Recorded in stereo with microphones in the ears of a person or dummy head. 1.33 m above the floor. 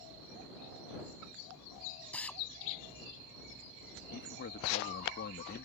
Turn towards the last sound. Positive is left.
turn(degrees=50)  # may be behind; listen again after turning